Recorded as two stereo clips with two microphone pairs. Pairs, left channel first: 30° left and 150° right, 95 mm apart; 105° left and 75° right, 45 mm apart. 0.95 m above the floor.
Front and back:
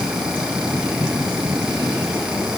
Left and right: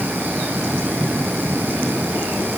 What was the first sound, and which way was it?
Only background noise.